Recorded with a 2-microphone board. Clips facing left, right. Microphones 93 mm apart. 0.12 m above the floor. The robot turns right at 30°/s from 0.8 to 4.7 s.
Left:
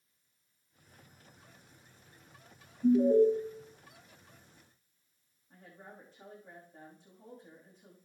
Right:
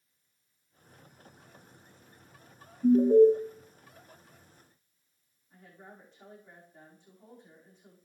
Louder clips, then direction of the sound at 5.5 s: Even; 35° left (ahead or behind).